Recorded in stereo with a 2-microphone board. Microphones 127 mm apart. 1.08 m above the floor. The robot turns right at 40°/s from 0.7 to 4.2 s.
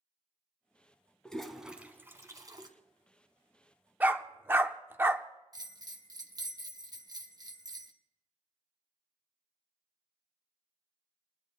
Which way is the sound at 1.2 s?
5° left (ahead or behind).